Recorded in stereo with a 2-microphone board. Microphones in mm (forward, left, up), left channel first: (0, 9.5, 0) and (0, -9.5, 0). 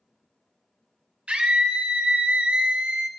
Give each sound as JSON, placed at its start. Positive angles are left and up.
{"t": 1.3, "sound": "a scream", "side_deg": -70, "distance_m": 1.2}